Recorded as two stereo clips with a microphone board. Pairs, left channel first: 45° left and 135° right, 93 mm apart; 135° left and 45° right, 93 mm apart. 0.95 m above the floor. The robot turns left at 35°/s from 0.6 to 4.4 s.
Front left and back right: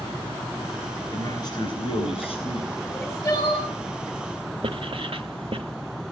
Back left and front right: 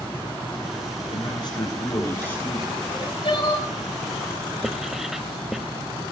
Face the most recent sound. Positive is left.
turn(degrees=-130)